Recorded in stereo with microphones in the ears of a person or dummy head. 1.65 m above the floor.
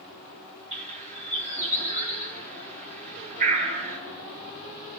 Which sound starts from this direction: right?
A bird, at 0.7 s.